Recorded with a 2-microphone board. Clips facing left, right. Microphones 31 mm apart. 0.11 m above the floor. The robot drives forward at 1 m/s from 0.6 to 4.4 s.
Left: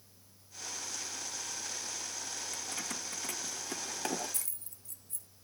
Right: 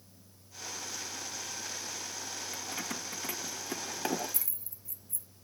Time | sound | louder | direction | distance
2.5 | keys jangling | right 4 dB | 10° right (ahead or behind) | ?